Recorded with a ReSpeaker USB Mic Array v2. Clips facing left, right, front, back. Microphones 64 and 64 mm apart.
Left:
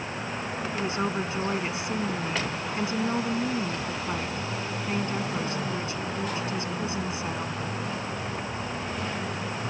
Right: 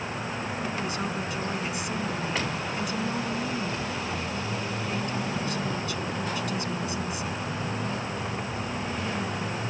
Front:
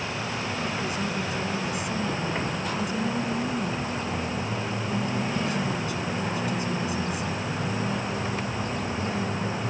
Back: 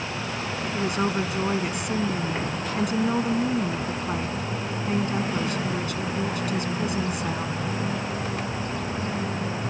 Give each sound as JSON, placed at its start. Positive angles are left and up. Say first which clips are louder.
{"t": 0.7, "sound": "a woman speaking", "louder": "left 2 dB, back 4 dB", "azimuth_deg": 150}